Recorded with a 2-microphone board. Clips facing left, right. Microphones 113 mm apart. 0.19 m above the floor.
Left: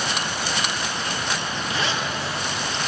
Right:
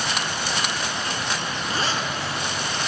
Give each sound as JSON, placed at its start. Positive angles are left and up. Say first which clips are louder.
{"t": 1.7, "sound": "a zipper", "louder": "even", "side_deg": -40, "distance_m": 1.9}